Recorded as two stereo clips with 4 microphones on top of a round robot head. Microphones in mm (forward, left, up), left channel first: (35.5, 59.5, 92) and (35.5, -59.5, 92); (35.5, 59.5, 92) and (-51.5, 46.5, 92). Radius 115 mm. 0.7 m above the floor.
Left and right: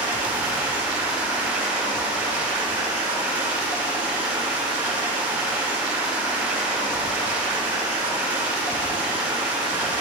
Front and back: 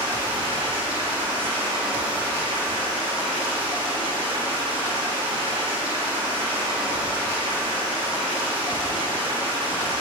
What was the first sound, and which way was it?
Running water, 145° right.